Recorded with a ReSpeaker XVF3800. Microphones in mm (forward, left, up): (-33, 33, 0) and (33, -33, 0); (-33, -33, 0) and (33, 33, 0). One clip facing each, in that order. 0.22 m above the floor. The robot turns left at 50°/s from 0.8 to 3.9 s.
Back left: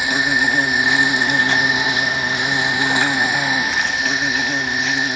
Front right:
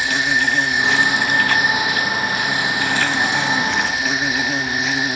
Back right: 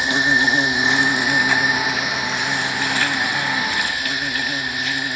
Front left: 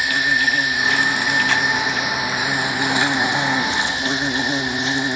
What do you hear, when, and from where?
0.0 s an insect: 165° right, 0.7 m; by 5.2 s 40° left, 0.7 m